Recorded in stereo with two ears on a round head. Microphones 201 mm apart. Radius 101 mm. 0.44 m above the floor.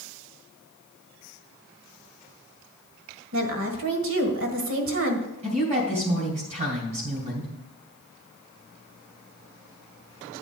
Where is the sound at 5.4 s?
35° right (ahead or behind), 2.5 m.